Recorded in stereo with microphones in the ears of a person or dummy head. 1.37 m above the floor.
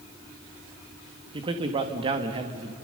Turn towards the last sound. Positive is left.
turn(degrees=-35)  # may be behind; listen again after turning